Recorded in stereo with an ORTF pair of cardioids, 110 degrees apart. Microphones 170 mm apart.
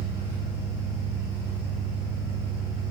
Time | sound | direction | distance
0.0 | an engine running | 60° right | 1.2 m